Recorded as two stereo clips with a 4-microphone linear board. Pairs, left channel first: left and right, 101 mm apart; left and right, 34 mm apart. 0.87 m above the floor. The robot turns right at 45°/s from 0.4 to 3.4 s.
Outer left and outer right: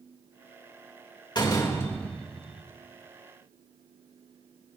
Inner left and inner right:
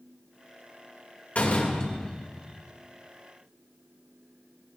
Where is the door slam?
135° left, 2.5 m; by 2.6 s 170° right, 2.5 m.